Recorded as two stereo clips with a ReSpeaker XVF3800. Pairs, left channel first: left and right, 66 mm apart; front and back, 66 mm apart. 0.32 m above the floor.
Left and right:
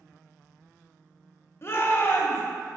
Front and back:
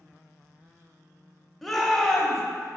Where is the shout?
85° left, 1.1 m.